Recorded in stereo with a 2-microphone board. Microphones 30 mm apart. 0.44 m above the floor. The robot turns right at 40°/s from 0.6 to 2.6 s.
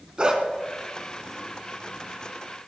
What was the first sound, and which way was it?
A dog barking, 35° right (ahead or behind).